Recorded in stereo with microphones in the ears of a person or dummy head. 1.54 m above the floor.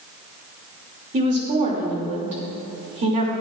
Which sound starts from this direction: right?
A woman speaking, at 1.1 s.